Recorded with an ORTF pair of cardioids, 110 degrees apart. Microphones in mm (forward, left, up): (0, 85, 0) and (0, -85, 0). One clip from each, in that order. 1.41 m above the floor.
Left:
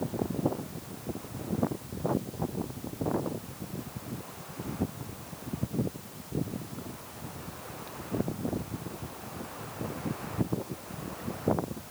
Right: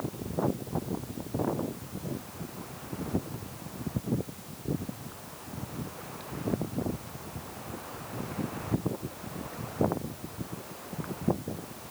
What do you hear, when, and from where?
Only background noise.